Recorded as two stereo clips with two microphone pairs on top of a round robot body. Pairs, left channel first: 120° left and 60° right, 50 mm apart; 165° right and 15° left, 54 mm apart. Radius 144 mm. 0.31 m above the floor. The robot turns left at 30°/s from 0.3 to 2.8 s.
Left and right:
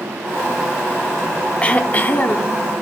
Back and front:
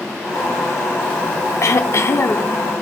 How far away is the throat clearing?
About 0.8 m.